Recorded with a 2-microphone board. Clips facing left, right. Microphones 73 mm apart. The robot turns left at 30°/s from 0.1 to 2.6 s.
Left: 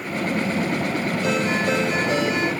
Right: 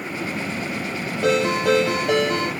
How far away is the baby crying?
No baby crying in this recording.